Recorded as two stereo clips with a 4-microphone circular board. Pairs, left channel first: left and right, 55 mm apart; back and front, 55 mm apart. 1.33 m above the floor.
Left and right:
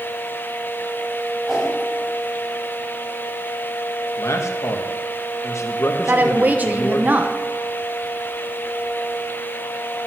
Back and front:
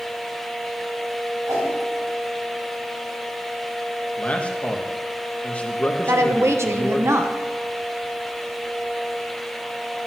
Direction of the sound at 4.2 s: 115° left.